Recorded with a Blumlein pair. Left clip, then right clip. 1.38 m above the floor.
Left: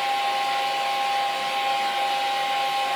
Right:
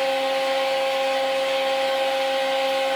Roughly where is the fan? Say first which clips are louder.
Right 1 dB; ahead.